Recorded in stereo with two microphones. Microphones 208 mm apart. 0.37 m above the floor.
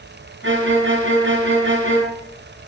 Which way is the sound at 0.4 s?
70° right (ahead or behind).